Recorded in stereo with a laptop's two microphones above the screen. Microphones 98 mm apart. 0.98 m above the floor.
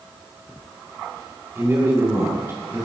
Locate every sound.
1.6 s a man speaking: 25° right (ahead or behind), 2.5 m